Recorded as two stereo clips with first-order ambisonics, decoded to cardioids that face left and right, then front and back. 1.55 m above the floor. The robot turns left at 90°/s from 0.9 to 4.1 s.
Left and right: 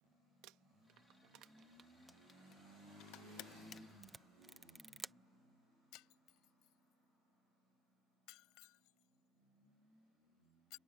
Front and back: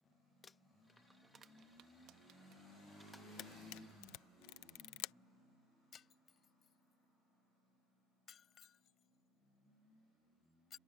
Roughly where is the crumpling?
Right.